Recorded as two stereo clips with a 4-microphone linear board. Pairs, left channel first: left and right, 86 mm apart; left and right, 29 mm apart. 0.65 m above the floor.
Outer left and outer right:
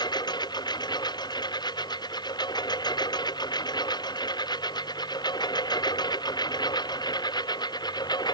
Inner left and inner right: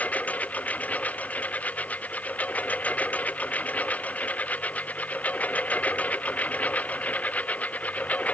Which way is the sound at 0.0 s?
55° left (ahead or behind).